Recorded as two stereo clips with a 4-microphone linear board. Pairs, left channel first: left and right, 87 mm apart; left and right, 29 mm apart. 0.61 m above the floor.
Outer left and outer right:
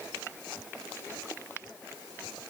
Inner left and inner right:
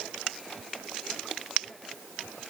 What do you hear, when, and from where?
Only background noise.